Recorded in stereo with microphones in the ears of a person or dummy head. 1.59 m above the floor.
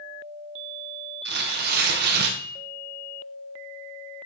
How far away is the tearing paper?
About 0.9 m.